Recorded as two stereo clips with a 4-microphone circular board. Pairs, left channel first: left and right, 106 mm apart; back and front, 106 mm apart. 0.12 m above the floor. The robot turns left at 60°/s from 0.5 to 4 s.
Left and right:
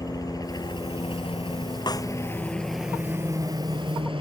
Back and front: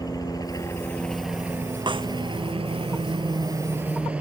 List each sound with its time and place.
0.0 s a helicopter: 135° left; by 4.2 s 75° right
1.9 s a snare drum: 45° left; by 2.1 s 30° left